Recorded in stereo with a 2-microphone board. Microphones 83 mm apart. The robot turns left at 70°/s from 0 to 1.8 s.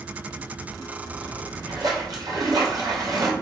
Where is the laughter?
No laughter in this recording.